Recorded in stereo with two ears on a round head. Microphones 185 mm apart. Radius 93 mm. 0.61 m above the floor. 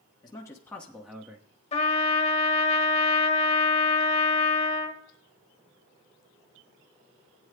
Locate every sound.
0.2 s a man speaking: 20° left (ahead or behind), 1.2 m; by 1.5 s 15° right (ahead or behind), 1.1 m
1.7 s a trumpet: 30° left (ahead or behind), 1.4 m